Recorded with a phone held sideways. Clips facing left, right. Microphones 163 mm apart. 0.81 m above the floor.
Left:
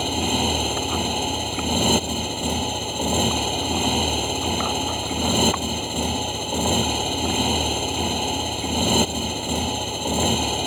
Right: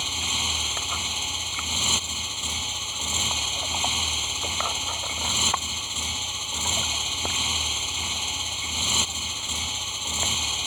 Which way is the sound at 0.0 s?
60° left (ahead or behind).